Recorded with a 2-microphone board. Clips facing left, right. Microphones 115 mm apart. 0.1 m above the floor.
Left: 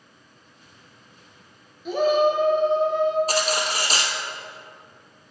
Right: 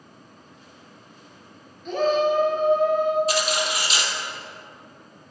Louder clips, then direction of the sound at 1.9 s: Left 1 dB; 5° left (ahead or behind).